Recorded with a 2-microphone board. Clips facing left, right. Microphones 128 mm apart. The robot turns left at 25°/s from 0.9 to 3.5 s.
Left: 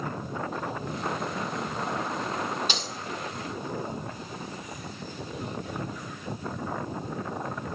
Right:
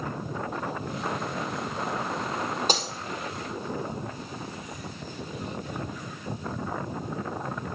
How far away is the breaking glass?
About 1.4 m.